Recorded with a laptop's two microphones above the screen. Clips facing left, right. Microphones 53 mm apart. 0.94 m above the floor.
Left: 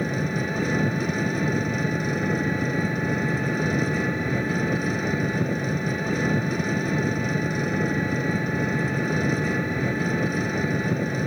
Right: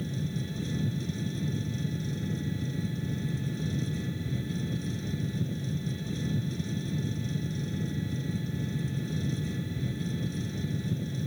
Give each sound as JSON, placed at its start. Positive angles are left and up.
{"t": 0.0, "sound": "an engine running", "side_deg": 60}